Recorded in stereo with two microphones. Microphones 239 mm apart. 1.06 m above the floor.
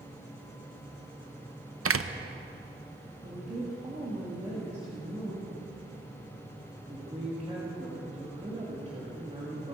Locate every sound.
1.9 s a door slam: 65° right (ahead or behind), 0.5 m
3.2 s a woman speaking: 25° right (ahead or behind), 1.9 m